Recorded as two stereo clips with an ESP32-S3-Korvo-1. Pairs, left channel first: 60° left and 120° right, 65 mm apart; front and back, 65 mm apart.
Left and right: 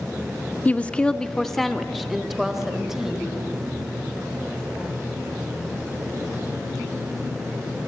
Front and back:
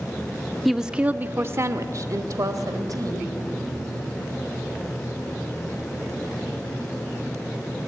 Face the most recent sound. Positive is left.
turn(degrees=160)